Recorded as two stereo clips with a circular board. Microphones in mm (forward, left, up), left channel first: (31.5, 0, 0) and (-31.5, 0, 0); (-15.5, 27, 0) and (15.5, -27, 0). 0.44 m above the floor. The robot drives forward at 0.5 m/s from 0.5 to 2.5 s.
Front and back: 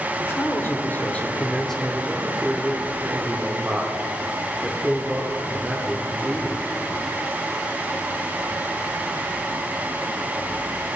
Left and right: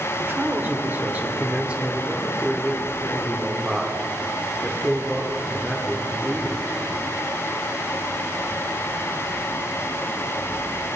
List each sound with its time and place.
0.2 s a man speaking: 20° right, 1.1 m; by 6.6 s 140° right, 0.9 m